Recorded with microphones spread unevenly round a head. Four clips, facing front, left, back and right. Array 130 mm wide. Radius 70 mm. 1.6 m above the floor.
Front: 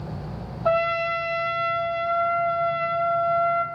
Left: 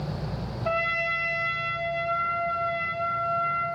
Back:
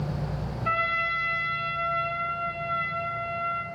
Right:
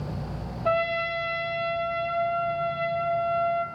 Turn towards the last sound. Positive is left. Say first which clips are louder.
# right 3 dB, front 7 dB
turn(degrees=-10)